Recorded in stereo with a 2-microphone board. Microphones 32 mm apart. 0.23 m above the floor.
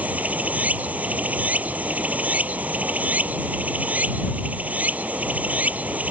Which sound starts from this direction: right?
Running water, at 0.0 s.